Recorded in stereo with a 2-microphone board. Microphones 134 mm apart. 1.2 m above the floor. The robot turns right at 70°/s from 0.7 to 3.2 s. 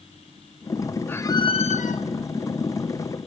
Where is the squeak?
10° left, 1.0 m; by 2.0 s 80° left, 1.0 m.